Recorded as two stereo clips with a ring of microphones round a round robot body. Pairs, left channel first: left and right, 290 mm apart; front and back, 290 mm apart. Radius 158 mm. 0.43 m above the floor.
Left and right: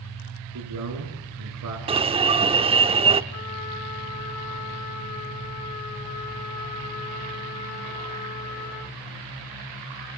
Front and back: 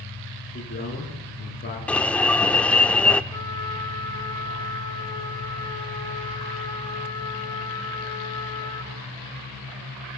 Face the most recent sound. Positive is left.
turn(degrees=75)